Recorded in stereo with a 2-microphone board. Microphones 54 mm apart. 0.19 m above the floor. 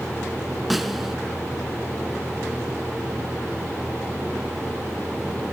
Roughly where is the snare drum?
Centre.